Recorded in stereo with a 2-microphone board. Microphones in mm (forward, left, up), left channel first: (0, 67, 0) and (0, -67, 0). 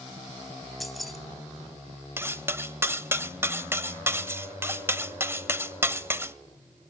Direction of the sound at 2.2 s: 20° right (ahead or behind).